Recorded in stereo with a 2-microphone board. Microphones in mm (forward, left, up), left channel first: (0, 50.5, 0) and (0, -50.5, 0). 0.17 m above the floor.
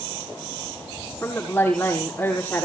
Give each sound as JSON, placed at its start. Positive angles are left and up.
{"t": 1.2, "sound": "a woman speaking", "side_deg": 20, "distance_m": 6.0}